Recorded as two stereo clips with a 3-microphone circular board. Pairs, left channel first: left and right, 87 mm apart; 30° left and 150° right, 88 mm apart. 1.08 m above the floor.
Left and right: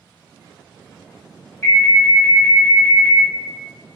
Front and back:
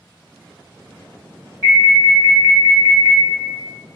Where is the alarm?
30° left, 2.0 m.